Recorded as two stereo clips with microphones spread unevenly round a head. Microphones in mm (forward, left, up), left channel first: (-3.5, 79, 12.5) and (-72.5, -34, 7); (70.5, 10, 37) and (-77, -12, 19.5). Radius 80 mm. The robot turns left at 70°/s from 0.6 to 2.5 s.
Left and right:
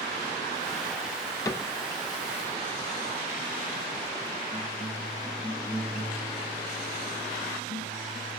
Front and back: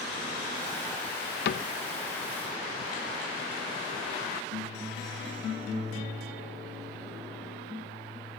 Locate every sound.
1.4 s a cupboard door: 10° right, 0.7 m; by 1.7 s 30° right, 0.7 m